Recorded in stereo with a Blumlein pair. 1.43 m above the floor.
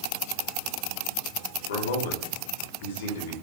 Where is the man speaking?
60° left, 3.5 m.